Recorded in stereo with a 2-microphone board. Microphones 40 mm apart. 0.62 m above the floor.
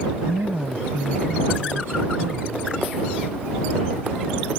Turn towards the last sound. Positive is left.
turn(degrees=-75)  # may be behind; listen again after turning